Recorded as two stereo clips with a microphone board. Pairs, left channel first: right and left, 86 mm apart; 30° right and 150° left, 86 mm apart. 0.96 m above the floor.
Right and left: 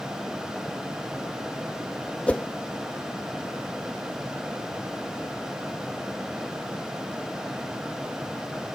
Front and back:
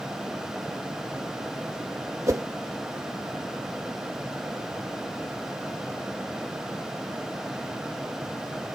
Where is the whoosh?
165° right.